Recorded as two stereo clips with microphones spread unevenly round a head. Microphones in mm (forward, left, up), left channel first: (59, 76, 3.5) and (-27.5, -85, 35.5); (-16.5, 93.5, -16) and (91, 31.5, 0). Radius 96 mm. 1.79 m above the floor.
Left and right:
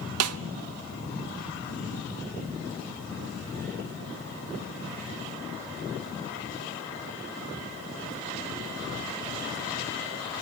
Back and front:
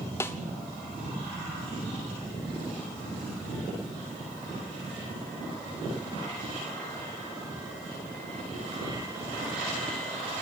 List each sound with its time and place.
0.2 s a snare drum: 130° right, 0.5 m